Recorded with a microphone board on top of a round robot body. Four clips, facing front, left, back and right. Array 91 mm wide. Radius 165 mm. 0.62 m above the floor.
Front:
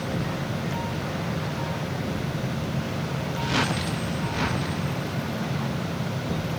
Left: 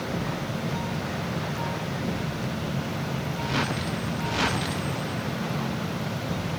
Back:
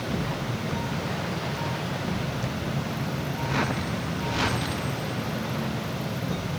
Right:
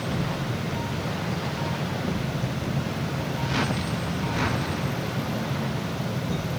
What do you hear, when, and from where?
Only background noise.